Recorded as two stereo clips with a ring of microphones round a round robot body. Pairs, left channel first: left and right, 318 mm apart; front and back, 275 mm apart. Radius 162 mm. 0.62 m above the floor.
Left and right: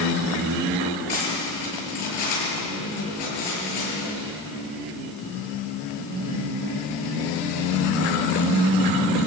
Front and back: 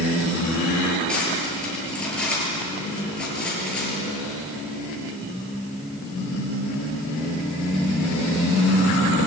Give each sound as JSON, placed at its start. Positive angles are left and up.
{"t": 1.1, "sound": "cutlery clinking", "azimuth_deg": 85, "distance_m": 9.0}